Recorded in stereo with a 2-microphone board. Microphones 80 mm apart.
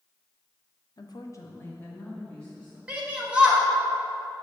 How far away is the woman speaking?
About 0.6 m.